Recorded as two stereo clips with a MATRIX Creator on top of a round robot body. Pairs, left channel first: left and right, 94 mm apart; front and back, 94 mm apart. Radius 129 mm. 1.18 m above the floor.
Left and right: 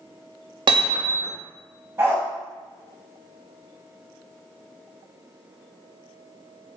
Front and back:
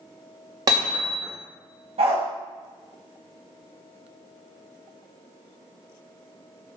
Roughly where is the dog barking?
Behind.